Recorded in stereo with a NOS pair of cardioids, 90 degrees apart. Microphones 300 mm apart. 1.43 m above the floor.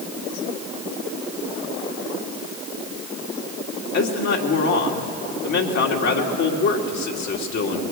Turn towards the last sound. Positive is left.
turn(degrees=65)